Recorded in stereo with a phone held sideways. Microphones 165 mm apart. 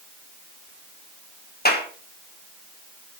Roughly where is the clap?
Left.